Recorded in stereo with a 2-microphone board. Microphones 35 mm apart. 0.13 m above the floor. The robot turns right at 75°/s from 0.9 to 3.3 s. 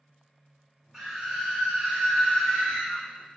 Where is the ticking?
I don't hear ticking.